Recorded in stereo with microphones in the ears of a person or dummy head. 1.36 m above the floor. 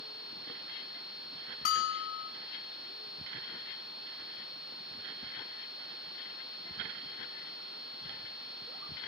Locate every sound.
1.6 s a bell: 45° left (ahead or behind), 1.7 m